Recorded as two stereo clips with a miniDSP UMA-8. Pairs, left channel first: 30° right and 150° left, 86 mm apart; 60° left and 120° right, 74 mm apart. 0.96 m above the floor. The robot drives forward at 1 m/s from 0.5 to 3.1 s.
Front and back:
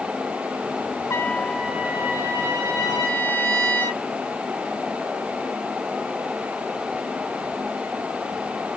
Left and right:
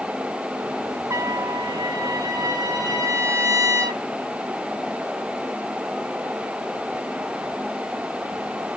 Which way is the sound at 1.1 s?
80° right.